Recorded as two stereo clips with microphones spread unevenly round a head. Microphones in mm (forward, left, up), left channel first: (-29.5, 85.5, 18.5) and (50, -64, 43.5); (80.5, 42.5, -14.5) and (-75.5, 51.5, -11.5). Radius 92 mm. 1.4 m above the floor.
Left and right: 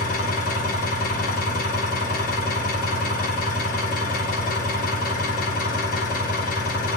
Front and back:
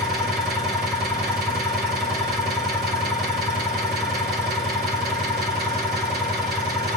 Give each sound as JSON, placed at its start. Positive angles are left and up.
{"t": 0.0, "sound": "an engine running", "azimuth_deg": 165, "distance_m": 2.0}